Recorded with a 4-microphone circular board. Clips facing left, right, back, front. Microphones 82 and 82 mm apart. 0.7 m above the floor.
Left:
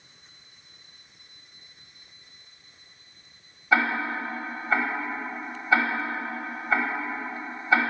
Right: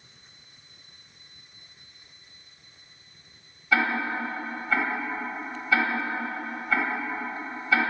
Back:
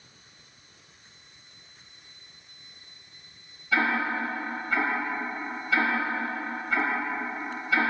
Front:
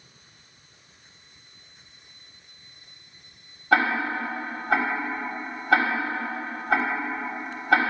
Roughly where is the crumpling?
No crumpling in this recording.